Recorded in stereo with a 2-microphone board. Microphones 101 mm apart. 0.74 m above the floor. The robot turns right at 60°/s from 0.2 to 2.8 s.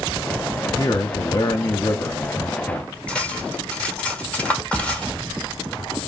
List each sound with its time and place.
0.8 s a man speaking: 45° left, 0.6 m; by 2.9 s 170° left, 0.6 m
3.1 s cutlery clinking: 10° left (ahead or behind), 1.5 m